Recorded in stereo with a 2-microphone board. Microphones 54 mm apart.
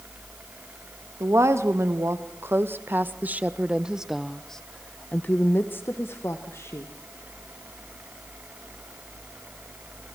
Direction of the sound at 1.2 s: 60° right (ahead or behind).